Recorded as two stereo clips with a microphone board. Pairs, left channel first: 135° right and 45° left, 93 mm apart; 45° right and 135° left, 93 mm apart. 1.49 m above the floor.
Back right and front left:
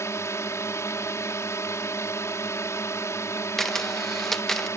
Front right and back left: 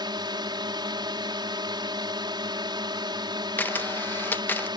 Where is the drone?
170° left.